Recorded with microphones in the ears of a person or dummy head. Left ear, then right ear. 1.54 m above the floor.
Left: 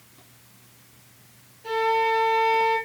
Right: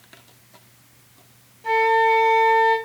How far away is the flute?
About 2.5 m.